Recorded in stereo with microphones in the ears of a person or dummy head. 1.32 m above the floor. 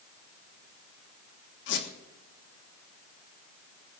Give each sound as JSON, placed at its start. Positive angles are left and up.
{"t": 1.7, "sound": "a squeak", "side_deg": 60, "distance_m": 1.5}